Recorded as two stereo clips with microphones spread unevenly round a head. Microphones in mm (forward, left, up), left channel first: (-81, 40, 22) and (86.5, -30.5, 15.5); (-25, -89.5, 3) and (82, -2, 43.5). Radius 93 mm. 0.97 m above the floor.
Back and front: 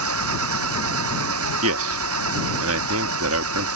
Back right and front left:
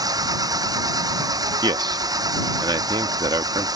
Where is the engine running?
25° right.